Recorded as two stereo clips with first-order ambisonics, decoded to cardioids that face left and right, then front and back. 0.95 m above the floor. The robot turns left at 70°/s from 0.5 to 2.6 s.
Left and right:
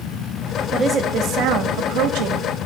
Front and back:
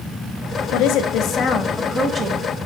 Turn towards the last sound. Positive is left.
turn(degrees=-140)